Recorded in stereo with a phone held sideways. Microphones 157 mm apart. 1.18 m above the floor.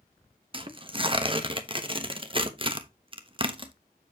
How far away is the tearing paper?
About 1.0 m.